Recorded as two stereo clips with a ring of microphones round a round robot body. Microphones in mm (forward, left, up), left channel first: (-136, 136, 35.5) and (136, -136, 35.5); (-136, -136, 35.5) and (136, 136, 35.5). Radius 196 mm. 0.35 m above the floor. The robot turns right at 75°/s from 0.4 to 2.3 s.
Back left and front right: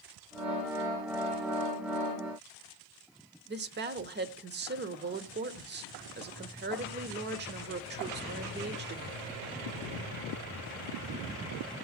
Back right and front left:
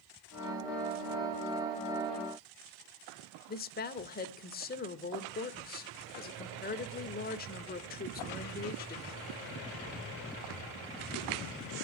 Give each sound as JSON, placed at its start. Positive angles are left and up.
{"t": 3.5, "sound": "a woman speaking", "azimuth_deg": -85, "distance_m": 1.0}